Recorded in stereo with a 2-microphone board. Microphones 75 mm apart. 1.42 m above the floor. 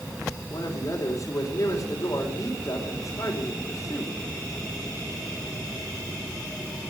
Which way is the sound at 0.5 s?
45° left (ahead or behind).